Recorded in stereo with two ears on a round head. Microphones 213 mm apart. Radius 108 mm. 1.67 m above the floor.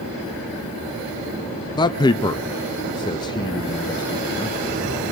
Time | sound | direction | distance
1.8 | a man speaking | 20° left (ahead or behind) | 0.6 m